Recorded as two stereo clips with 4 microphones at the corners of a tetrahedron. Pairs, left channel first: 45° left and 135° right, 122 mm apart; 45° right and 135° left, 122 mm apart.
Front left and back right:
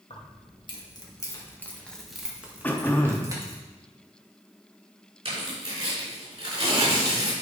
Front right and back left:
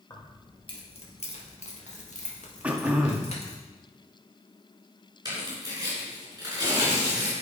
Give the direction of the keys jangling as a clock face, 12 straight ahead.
12 o'clock.